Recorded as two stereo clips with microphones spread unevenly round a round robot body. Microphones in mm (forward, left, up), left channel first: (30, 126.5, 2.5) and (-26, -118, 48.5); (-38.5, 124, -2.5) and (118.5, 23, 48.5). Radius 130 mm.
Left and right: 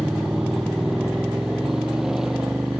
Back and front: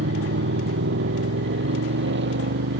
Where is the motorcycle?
15° right.